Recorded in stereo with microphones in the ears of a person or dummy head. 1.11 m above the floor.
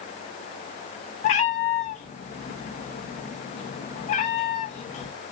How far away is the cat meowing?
About 0.5 m.